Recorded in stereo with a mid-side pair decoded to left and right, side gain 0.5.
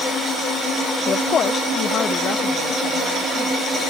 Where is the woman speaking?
50° left.